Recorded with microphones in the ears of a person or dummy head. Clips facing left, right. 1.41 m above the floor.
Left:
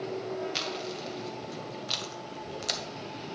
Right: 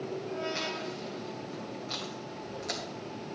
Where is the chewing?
45° left (ahead or behind), 1.2 m.